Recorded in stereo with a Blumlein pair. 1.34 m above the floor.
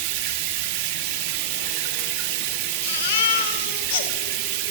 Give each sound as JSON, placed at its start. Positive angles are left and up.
{"t": 0.0, "sound": "running water", "azimuth_deg": -45, "distance_m": 1.8}
{"t": 2.8, "sound": "a baby crying", "azimuth_deg": 50, "distance_m": 1.6}